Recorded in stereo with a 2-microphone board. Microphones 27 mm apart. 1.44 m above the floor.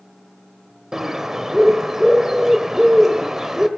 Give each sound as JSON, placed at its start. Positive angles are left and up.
{"t": 0.9, "sound": "a bird", "side_deg": -15, "distance_m": 1.2}